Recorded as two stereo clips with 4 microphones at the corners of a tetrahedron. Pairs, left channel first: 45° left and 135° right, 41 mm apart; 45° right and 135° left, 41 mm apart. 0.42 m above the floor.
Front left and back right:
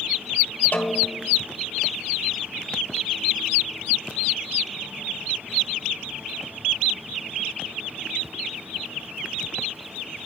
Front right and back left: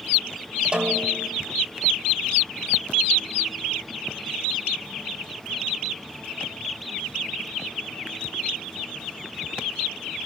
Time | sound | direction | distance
0.7 | a snare drum | 75° left | 1.4 m